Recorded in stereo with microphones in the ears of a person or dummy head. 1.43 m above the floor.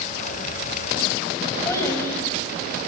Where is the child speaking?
20° left (ahead or behind), 6.5 m.